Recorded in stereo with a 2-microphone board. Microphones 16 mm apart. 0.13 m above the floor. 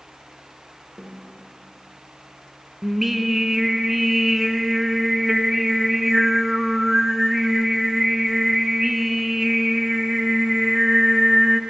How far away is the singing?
About 0.5 m.